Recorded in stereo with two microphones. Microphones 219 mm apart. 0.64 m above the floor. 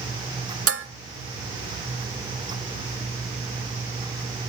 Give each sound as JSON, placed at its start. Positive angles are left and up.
{"t": 0.7, "sound": "dishes clattering", "side_deg": -80, "distance_m": 1.0}